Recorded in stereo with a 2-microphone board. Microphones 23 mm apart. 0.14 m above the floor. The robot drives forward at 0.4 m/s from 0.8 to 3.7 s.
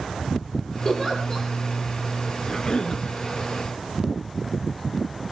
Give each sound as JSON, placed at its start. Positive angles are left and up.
{"t": 0.8, "sound": "a giggle", "side_deg": 20, "distance_m": 5.0}
{"t": 2.5, "sound": "a cough", "side_deg": 35, "distance_m": 1.8}